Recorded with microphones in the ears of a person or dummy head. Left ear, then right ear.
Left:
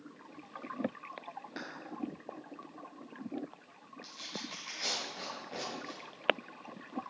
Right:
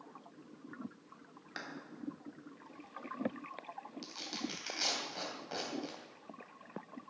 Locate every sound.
1.6 s a clap: 30° right (ahead or behind), 2.5 m
4.0 s tearing paper: 70° right (ahead or behind), 3.5 m